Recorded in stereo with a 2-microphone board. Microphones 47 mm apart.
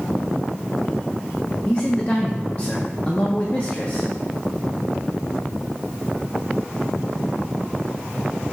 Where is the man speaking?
30° left (ahead or behind), 0.7 m.